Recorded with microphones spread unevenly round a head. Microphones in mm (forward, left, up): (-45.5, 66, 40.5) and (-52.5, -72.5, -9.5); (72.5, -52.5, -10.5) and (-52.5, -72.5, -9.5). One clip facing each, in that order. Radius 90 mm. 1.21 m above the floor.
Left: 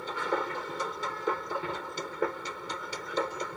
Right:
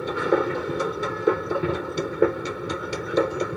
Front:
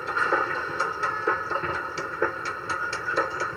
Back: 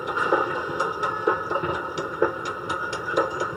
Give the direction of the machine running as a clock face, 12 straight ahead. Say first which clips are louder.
Right 10 dB, back 3 dB; 3 o'clock.